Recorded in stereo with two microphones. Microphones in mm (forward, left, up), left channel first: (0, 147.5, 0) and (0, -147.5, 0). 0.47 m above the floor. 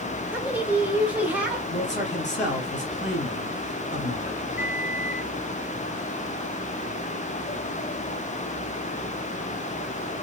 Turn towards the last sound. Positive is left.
turn(degrees=-10)  # may be behind; listen again after turning